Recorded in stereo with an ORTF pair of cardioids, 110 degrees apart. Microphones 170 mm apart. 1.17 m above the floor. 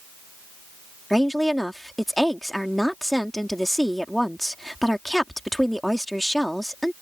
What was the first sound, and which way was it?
A woman speaking, straight ahead.